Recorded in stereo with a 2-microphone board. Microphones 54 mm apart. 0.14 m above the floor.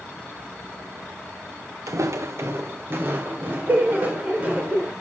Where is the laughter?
60° right (ahead or behind), 7 m.